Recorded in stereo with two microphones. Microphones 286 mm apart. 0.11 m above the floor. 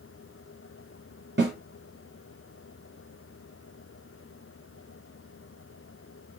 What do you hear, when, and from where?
1.4 s a snare drum: 40° right (ahead or behind), 2 m